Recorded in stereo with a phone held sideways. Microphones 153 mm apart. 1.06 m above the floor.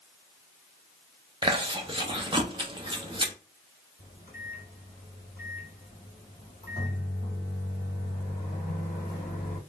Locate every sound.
1.4 s chewing: 30° right (ahead or behind), 0.8 m
4.0 s a microwave: 75° left (ahead or behind), 1.6 m